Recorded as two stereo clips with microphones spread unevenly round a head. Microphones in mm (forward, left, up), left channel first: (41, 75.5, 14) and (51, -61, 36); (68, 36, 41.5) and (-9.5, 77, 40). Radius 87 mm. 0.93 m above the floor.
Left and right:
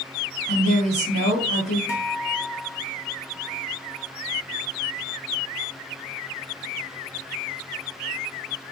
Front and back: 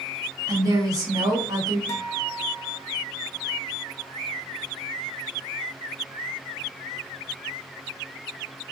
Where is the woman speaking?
110° left, 1.8 m.